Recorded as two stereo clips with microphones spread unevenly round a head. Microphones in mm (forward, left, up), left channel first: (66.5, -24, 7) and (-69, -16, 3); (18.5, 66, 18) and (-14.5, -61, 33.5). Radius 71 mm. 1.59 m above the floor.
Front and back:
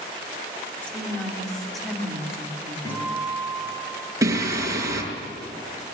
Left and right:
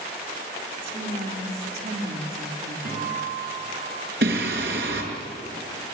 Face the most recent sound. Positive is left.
turn(degrees=-115)